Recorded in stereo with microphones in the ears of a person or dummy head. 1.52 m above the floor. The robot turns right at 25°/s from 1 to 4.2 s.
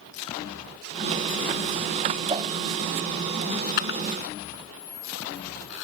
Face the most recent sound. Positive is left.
turn(degrees=75)  # may be behind; listen again after turning